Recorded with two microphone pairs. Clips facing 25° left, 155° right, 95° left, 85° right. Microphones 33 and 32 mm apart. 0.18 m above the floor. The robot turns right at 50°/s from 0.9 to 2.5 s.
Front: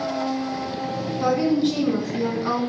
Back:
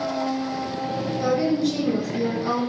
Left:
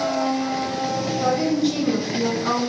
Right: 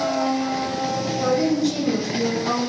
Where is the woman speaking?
10° left, 1.5 m; by 2.7 s 75° left, 1.5 m.